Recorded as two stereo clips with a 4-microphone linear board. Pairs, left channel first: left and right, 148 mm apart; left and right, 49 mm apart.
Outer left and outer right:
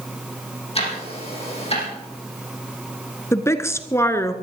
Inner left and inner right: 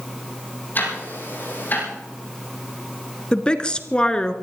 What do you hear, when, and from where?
0.8 s ticking: 45° left (ahead or behind), 6 m
3.3 s a woman speaking: 20° left (ahead or behind), 1.1 m